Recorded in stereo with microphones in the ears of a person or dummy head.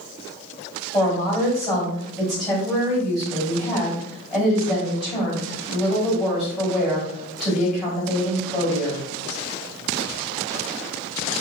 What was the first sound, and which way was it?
A woman speaking, 5° right (ahead or behind).